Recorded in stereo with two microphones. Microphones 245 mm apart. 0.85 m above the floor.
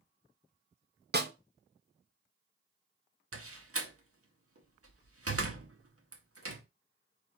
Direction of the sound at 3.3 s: 65° right (ahead or behind).